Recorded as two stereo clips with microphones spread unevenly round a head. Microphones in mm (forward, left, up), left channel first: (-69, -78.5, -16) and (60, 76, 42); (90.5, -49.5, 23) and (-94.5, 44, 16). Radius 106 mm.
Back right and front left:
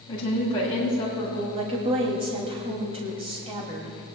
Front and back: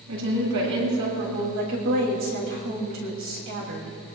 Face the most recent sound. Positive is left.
turn(degrees=120)